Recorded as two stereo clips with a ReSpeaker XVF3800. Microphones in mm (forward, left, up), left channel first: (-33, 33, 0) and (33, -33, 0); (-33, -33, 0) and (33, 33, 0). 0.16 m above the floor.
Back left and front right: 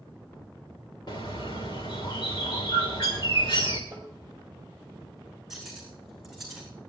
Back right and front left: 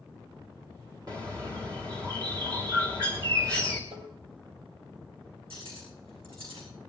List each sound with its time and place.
1.1 s a bird: 95° left, 3.5 m
3.9 s tapping: 30° left, 5 m
5.5 s cutlery clinking: 45° left, 7.5 m